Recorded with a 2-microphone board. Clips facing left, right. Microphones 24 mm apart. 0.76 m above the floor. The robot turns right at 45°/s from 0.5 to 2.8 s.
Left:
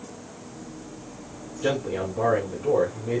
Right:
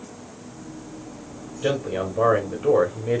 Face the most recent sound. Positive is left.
turn(degrees=-130)